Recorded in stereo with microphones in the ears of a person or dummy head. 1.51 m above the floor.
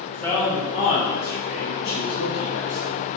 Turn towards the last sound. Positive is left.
turn(degrees=65)  # may be behind; listen again after turning